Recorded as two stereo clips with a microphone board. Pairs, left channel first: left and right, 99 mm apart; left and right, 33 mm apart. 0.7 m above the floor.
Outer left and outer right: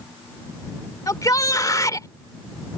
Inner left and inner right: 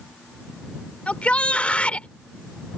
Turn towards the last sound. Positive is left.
turn(degrees=35)  # may be behind; listen again after turning